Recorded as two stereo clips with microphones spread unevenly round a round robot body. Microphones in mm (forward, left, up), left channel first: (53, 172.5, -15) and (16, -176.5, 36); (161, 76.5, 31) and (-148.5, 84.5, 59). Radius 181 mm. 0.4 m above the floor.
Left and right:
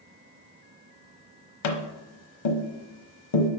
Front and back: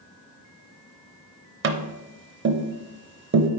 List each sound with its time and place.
1.6 s tapping: 120° left, 0.8 m